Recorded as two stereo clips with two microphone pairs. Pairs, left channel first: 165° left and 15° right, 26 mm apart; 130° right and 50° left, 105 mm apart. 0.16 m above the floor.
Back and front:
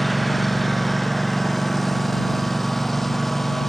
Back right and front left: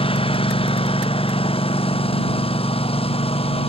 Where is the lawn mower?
105° right; by 3.7 s 110° right.